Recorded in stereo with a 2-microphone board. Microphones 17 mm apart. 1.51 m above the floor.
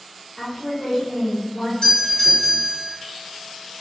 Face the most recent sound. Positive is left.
turn(degrees=35)  # may be behind; listen again after turning